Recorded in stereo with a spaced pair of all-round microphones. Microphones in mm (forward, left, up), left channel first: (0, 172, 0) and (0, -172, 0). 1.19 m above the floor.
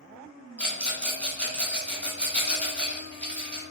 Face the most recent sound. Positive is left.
turn(degrees=5)  # may be behind; listen again after turning